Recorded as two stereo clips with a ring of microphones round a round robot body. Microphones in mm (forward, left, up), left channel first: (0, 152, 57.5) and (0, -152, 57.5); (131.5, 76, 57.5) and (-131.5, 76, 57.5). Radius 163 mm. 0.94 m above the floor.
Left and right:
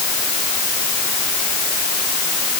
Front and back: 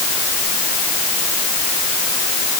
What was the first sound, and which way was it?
Only background noise.